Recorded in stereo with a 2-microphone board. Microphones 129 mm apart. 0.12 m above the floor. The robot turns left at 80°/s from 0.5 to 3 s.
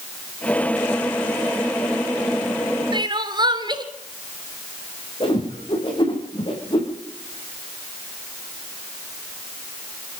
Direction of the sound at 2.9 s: 40° right (ahead or behind).